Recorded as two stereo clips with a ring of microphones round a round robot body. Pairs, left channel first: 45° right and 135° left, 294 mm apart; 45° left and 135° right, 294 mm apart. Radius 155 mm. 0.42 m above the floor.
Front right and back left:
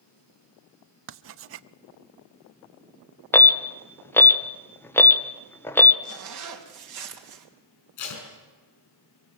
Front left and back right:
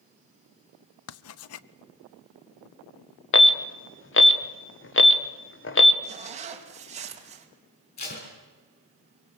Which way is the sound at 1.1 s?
85° left.